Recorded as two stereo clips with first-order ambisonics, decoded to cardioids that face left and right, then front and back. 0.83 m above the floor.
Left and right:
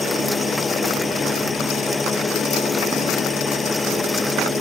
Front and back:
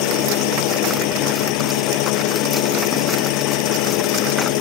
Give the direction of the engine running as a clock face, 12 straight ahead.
12 o'clock.